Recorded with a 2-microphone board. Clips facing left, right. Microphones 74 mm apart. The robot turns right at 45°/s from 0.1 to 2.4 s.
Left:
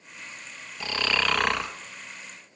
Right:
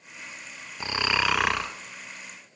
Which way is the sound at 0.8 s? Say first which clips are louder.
Right 1 dB; 35° right.